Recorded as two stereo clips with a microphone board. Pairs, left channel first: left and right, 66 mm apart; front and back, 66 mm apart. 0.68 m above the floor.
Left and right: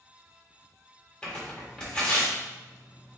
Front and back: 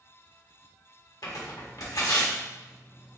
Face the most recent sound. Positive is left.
turn(degrees=15)